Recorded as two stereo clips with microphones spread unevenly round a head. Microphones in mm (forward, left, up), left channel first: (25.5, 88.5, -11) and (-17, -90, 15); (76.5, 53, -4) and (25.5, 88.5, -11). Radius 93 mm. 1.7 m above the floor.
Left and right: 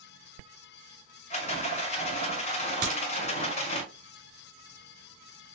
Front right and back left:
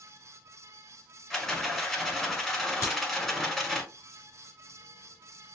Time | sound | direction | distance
1.3 | a rattle | 40° left | 1.6 m
2.8 | a crack | 90° right | 3 m